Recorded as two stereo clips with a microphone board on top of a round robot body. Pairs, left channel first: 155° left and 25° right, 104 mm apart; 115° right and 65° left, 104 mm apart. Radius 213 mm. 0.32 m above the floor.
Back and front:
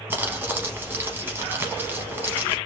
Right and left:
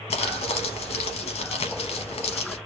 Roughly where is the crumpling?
Right.